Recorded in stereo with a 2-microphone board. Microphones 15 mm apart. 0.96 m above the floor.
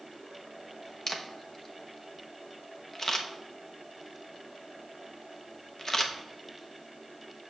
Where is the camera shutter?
25° left (ahead or behind), 0.9 m.